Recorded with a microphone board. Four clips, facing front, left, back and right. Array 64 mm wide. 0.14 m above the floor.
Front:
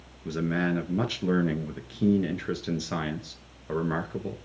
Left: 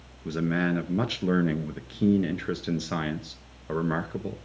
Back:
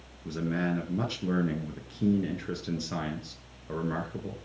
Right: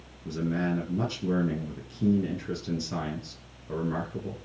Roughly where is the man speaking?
Ahead left.